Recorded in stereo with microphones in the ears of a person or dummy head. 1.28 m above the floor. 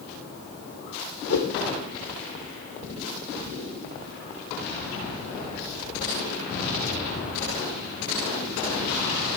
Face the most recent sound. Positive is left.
turn(degrees=65)  # may be behind; listen again after turning